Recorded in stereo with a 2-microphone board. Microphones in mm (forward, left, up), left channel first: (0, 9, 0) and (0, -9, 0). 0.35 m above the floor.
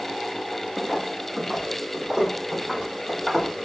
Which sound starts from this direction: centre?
Footsteps, at 0.8 s.